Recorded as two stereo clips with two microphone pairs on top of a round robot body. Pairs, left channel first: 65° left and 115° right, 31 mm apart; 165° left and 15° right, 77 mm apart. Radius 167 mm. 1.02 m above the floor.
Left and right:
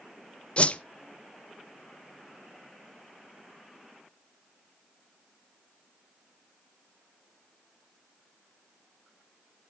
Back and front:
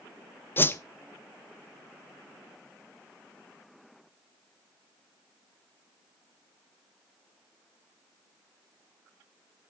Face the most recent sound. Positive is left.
turn(degrees=105)